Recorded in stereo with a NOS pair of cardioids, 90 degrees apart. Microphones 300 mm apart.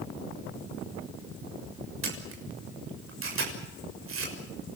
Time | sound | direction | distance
2.0 | a camera shutter | 45° right | 6.5 m